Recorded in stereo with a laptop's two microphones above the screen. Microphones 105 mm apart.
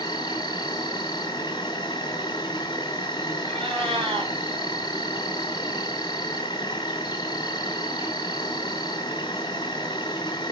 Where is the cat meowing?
75° right (ahead or behind), 1.9 m.